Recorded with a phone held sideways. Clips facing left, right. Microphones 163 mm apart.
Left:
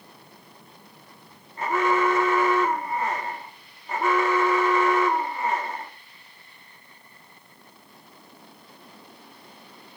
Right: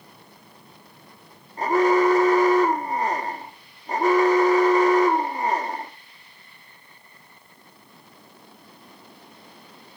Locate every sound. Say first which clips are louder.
1.6 s an alarm: right 5 dB; 40° right (ahead or behind), 1.3 m